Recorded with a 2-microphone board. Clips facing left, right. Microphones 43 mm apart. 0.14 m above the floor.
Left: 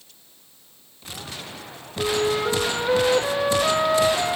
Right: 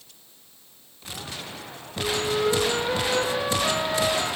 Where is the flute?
35° left (ahead or behind), 3 m.